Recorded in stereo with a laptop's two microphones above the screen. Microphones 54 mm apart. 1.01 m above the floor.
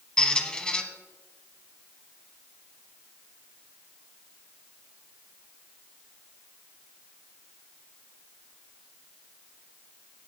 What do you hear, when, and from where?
0.2 s a squeak: 15° left (ahead or behind), 1.1 m